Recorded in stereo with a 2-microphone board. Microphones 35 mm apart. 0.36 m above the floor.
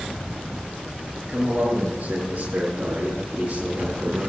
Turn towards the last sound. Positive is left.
turn(degrees=-40)  # may be behind; listen again after turning